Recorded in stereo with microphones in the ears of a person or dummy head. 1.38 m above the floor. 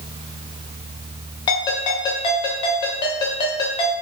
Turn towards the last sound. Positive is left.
turn(degrees=25)  # may be behind; listen again after turning